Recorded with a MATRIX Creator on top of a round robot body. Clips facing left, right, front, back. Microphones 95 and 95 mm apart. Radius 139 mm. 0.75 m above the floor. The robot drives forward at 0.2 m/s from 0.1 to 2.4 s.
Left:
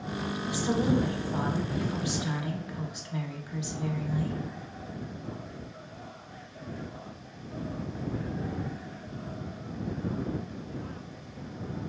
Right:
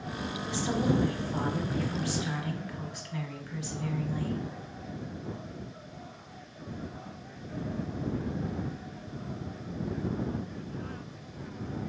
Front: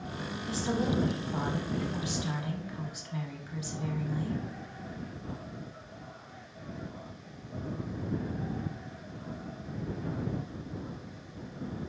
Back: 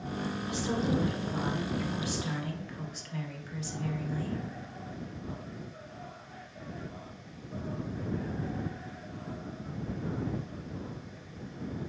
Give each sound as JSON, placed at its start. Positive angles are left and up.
{"t": 0.5, "sound": "a woman speaking", "azimuth_deg": 20, "distance_m": 0.9}